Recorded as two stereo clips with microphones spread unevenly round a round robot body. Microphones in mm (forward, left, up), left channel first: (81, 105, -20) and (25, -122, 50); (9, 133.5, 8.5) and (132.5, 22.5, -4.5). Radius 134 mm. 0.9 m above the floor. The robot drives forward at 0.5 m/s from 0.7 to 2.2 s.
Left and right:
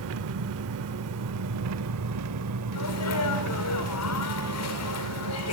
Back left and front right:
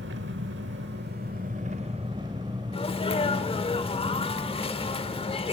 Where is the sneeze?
80° left, 3 m.